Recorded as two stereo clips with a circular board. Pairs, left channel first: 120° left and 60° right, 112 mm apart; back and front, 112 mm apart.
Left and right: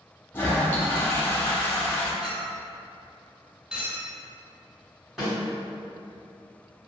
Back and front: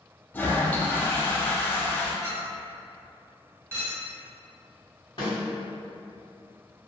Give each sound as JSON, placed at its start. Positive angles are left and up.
{"t": 0.3, "sound": "a toilet flushing", "azimuth_deg": 140, "distance_m": 0.5}
{"t": 2.2, "sound": "a clink", "azimuth_deg": 10, "distance_m": 0.9}
{"t": 5.2, "sound": "a snare drum", "azimuth_deg": -145, "distance_m": 1.9}